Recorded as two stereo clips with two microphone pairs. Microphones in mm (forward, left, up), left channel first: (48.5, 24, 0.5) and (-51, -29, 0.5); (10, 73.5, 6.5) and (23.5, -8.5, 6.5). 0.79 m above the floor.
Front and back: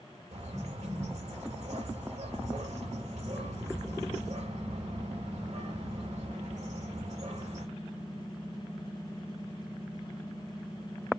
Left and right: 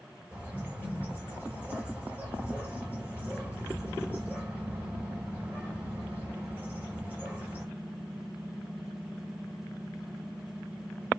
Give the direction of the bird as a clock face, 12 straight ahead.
5 o'clock.